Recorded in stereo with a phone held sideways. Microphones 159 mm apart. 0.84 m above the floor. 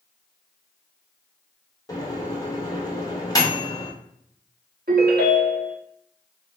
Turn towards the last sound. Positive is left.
turn(degrees=-75)  # may be behind; listen again after turning